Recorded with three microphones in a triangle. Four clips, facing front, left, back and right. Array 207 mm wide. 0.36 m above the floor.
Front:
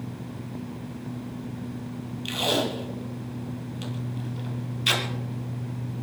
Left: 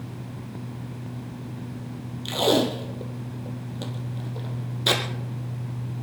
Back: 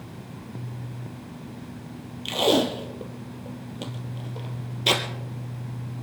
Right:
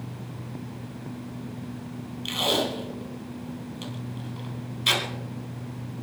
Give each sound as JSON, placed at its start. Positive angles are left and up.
{"t": 2.2, "sound": "tape being pulled", "azimuth_deg": 145, "distance_m": 2.0}